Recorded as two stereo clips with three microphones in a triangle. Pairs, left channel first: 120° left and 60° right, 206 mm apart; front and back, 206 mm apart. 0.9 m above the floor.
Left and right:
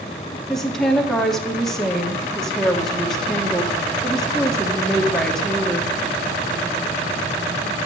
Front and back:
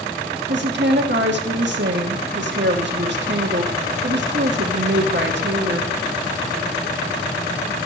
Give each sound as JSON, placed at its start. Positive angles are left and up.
{"t": 0.5, "sound": "a woman speaking", "azimuth_deg": -150, "distance_m": 1.4}